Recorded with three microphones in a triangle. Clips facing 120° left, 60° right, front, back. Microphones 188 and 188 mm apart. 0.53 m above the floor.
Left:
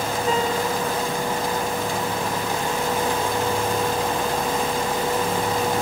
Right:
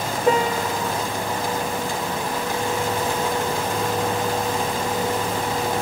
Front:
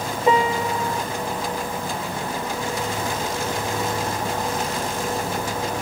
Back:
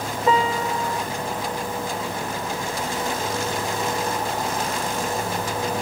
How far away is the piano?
About 0.7 m.